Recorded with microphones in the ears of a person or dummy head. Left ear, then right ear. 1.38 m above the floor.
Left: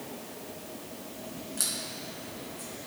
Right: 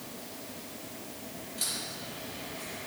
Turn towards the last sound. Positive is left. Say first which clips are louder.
# left 1 dB
turn(degrees=60)  # may be behind; listen again after turning